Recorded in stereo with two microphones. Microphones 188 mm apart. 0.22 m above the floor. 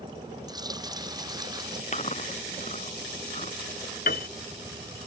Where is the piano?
55° left (ahead or behind).